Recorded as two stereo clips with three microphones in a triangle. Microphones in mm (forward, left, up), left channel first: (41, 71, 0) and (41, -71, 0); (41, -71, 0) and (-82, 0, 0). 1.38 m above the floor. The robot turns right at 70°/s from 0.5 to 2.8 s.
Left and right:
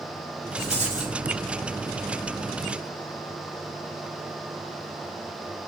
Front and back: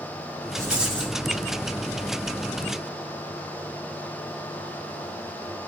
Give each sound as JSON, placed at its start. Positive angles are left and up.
{"t": 0.6, "sound": "a rattle", "azimuth_deg": -145, "distance_m": 5.5}